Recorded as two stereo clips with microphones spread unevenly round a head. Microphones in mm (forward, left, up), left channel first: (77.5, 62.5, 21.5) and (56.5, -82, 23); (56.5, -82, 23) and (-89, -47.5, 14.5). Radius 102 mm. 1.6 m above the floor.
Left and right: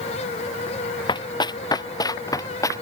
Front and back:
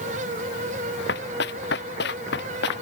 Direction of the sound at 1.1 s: 25° left.